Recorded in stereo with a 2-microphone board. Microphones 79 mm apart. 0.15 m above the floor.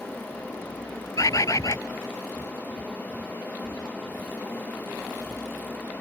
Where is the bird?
45° left (ahead or behind).